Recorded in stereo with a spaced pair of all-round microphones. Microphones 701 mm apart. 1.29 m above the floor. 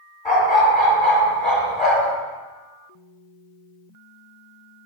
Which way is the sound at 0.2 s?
45° left (ahead or behind).